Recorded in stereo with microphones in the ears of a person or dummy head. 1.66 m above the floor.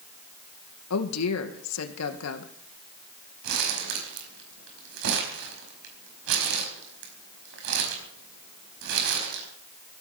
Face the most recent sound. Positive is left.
turn(degrees=-70)  # may be behind; listen again after turning